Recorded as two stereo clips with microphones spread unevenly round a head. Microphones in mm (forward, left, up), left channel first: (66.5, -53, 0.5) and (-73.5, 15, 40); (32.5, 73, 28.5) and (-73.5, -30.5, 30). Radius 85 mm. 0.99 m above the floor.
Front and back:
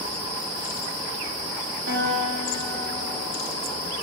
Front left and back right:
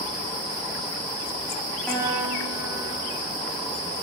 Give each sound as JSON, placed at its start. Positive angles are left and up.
{"t": 1.9, "sound": "a guitar", "azimuth_deg": 130, "distance_m": 5.0}